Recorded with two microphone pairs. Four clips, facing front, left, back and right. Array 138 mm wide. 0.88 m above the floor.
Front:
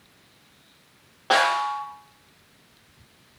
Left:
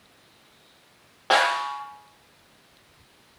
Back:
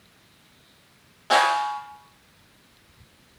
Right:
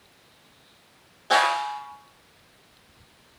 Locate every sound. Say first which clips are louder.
1.3 s a snare drum: even, back 1 dB; 75° left, 8.5 m